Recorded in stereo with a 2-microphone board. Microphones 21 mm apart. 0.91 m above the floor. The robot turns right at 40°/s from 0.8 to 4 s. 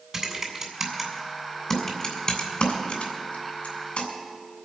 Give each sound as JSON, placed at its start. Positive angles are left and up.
{"t": 0.1, "sound": "typing on a keyboard", "side_deg": -20, "distance_m": 3.0}